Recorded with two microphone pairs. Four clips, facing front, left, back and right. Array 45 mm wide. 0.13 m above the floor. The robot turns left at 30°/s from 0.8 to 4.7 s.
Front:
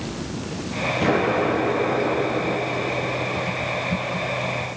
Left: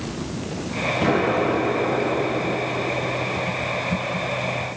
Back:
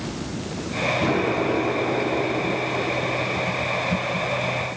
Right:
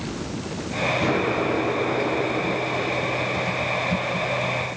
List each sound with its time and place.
1.0 s an explosion: 40° left, 6 m; by 3.4 s 30° right, 6 m